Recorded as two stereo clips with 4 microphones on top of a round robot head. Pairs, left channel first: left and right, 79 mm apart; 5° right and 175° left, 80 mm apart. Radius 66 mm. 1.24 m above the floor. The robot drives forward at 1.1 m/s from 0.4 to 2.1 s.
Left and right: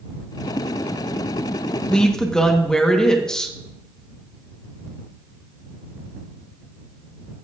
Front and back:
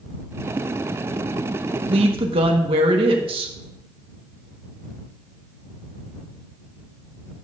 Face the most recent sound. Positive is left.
turn(degrees=170)